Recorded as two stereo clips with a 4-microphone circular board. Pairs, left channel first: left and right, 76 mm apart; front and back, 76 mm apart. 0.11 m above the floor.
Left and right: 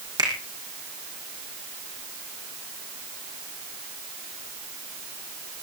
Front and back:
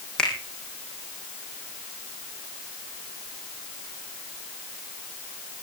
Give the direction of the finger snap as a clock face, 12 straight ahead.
3 o'clock.